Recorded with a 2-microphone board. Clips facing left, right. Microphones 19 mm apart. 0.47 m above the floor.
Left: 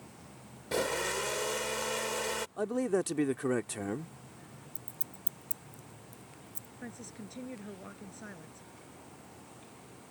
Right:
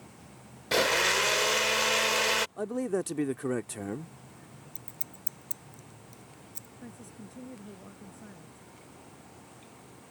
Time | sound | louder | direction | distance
0.7 | a blender | right 7 dB | 70° right (ahead or behind) | ?
2.6 | a man speaking | even | 15° left (ahead or behind) | ?
4.8 | scissors | right 1 dB | 35° right (ahead or behind) | ?
6.8 | a woman speaking | left 3 dB | 50° left (ahead or behind) | ?